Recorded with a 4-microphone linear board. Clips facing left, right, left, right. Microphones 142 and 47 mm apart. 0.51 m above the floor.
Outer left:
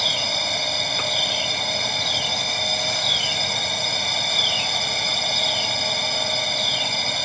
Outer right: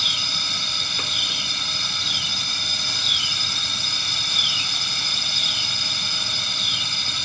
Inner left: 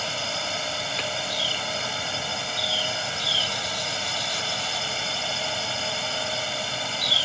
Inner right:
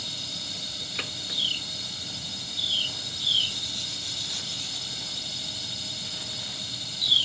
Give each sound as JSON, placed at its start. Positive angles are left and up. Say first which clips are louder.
{"t": 0.0, "sound": "a drone", "louder": "outer left 9 dB, inner left 9 dB", "side_deg": 55}